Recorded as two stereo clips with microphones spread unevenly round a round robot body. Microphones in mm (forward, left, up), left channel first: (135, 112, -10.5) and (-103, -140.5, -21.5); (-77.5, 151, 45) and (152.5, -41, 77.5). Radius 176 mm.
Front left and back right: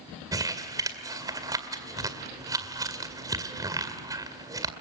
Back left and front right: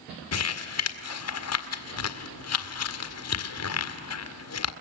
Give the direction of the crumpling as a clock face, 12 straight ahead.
7 o'clock.